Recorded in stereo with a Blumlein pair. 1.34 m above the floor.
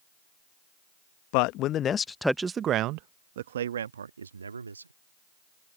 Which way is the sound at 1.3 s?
45° left.